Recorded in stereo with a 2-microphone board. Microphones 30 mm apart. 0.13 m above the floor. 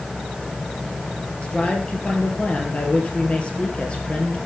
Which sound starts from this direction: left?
A man speaking, at 1.4 s.